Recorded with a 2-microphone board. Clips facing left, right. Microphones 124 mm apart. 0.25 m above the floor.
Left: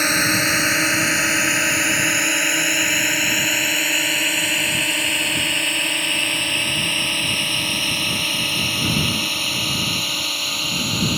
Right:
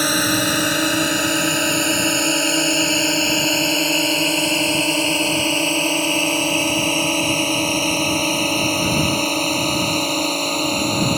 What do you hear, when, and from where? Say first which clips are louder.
0.0 s a drone: right 2 dB; 15° right (ahead or behind); by 11.2 s 45° right (ahead or behind)